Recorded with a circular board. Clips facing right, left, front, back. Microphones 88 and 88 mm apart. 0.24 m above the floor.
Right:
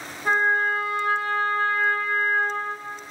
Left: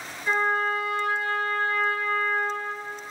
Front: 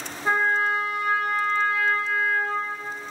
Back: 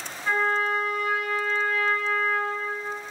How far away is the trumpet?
About 0.6 m.